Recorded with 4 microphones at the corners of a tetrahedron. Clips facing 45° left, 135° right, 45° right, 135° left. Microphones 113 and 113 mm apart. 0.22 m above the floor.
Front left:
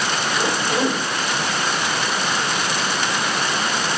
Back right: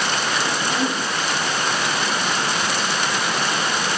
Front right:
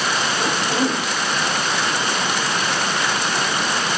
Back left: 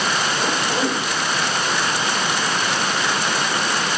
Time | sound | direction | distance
0.4 | a cough | 55° left | 6.5 m